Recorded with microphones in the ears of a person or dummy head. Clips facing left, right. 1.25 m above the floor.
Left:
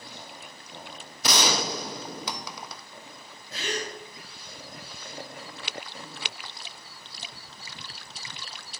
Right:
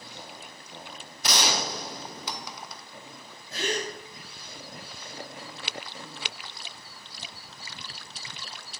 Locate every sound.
1.2 s a gunshot: 70° left (ahead or behind), 1.0 m
3.5 s a gasp: 45° right (ahead or behind), 5 m